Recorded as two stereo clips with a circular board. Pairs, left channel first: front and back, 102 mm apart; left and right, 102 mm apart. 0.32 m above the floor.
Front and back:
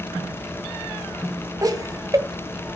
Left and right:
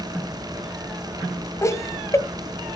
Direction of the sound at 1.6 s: 140° left.